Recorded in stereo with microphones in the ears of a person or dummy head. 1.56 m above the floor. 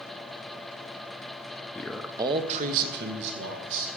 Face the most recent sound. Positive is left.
turn(degrees=-75)  # may be behind; listen again after turning